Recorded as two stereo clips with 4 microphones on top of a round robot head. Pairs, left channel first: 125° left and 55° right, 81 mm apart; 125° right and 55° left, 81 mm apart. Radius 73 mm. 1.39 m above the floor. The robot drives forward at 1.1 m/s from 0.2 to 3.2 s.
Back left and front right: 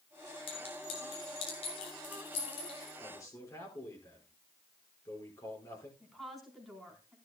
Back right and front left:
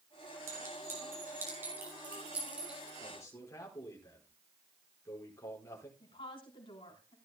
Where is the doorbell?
I don't hear a doorbell.